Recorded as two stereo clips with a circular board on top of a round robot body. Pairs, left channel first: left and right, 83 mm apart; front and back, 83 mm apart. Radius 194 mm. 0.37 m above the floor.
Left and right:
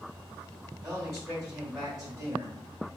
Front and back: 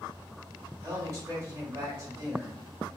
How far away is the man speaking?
About 1.7 m.